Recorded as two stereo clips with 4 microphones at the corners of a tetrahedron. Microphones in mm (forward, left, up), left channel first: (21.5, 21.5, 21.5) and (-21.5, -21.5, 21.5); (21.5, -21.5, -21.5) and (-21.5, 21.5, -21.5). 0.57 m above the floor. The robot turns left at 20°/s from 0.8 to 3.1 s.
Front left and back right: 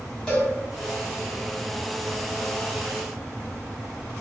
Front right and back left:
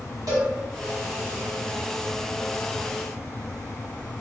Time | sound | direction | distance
0.3 | a cowbell | 120° left | 1.3 m